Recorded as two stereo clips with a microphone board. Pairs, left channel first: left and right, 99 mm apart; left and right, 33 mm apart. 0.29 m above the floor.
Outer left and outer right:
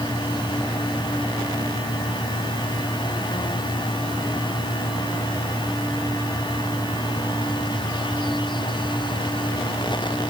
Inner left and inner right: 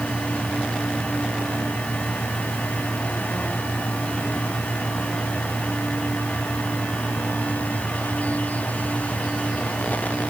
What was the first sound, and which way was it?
Only background noise.